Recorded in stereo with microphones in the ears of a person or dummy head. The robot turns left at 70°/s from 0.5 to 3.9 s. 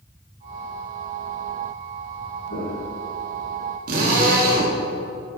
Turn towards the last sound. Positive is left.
turn(degrees=-55)  # may be behind; listen again after turning